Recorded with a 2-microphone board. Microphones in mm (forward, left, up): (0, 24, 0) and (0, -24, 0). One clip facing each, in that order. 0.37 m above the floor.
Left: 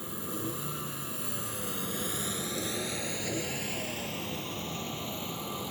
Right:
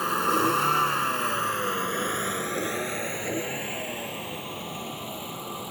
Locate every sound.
0.0 s a vehicle: 75° right (ahead or behind); by 5.7 s 10° right (ahead or behind)